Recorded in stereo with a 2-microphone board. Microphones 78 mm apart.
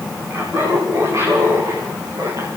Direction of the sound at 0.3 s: 35° right (ahead or behind).